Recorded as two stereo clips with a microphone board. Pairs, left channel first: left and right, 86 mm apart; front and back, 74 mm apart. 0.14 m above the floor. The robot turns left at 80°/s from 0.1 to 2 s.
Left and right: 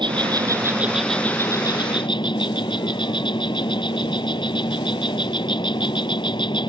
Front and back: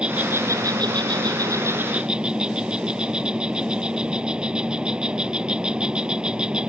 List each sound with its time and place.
0.0 s an insect: 105° right; by 6.7 s 105° left